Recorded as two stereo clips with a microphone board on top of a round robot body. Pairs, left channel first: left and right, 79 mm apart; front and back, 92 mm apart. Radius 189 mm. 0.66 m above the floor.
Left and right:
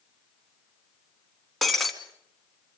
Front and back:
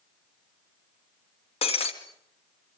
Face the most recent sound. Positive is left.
turn(degrees=0)